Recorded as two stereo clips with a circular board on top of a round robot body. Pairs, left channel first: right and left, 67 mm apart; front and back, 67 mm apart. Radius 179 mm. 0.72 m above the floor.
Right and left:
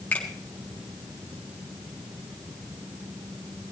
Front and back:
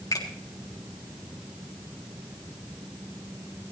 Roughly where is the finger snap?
Ahead right.